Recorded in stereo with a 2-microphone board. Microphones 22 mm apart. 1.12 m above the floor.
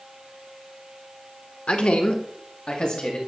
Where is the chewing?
I don't hear chewing.